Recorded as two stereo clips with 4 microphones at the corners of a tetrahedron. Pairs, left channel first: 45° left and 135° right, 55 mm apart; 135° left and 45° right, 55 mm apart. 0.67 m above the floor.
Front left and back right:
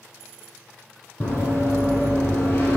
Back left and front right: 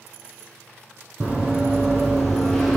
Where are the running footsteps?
25° left, 1.5 m; by 2.8 s 55° left, 0.8 m.